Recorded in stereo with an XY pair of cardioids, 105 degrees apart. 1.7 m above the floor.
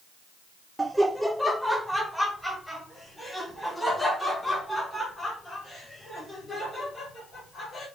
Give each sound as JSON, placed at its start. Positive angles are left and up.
{"t": 0.8, "sound": "laughter", "azimuth_deg": -10, "distance_m": 0.6}